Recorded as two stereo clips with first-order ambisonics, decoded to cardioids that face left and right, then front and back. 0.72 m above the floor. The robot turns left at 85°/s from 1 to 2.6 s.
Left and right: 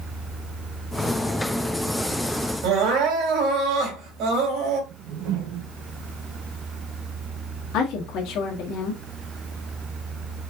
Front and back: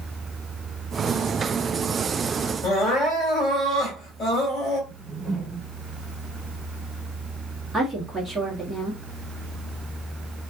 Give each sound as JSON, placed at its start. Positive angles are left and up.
{"t": 2.6, "sound": "crying", "azimuth_deg": -55, "distance_m": 2.5}
{"t": 4.9, "sound": "a whoosh", "azimuth_deg": -105, "distance_m": 1.5}
{"t": 7.7, "sound": "a woman speaking", "azimuth_deg": 95, "distance_m": 1.7}